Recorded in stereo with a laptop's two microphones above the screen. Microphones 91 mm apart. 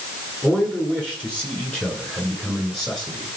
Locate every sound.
0.4 s a man speaking: 10° left (ahead or behind), 10 m